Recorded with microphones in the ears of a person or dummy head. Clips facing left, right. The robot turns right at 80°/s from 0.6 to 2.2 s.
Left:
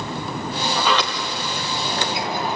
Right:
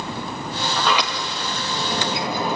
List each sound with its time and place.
0.8 s a sliding door: 165° left, 2.5 m; by 2.6 s 80° right, 2.5 m